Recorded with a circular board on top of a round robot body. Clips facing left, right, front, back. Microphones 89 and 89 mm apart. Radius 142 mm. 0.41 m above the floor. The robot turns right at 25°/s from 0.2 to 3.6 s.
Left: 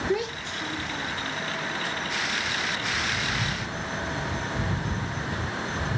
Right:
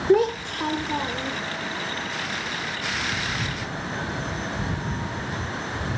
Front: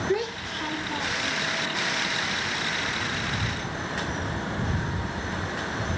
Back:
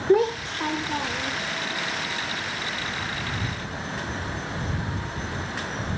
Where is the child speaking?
130° right; by 1.4 s 100° right.